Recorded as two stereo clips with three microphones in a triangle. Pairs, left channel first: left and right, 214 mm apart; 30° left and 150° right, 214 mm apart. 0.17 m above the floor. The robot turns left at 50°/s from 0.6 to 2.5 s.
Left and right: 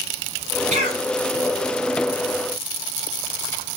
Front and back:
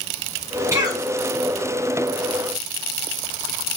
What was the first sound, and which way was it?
A cough, 80° right.